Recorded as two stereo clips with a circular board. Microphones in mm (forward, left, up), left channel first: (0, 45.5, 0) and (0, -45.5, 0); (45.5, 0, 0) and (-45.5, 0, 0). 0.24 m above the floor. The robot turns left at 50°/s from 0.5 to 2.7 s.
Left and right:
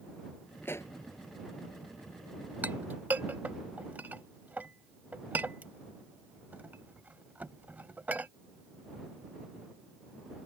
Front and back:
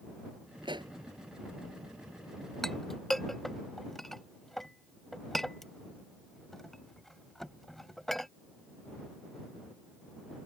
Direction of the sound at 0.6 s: 155° left.